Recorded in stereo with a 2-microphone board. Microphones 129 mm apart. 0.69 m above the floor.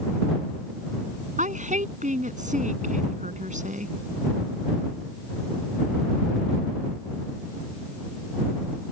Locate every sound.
1.4 s a woman speaking: 75° right (ahead or behind)